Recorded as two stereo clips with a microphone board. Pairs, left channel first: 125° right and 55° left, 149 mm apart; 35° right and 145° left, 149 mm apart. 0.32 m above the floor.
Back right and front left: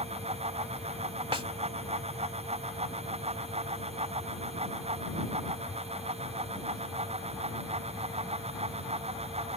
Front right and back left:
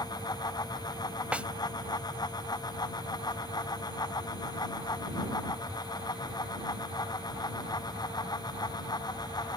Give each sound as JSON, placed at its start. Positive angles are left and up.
{"t": 1.3, "sound": "a snare drum", "azimuth_deg": 70}